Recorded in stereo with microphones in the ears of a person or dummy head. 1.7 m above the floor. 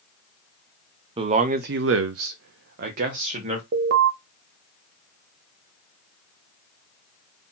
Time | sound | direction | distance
1.2 | a man speaking | 20° right (ahead or behind) | 0.7 m
3.7 | an alarm | 65° right (ahead or behind) | 0.8 m